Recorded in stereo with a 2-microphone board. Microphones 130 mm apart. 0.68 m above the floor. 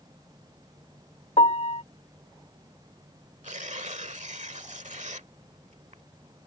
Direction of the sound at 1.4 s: 60° left (ahead or behind).